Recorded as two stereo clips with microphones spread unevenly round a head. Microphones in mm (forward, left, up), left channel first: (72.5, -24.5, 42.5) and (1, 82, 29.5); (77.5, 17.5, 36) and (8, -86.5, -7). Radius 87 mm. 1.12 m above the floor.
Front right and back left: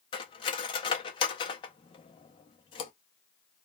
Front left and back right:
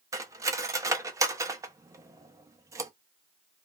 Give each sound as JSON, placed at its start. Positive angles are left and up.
{"t": 0.1, "sound": "cutlery clinking", "azimuth_deg": -45, "distance_m": 0.5}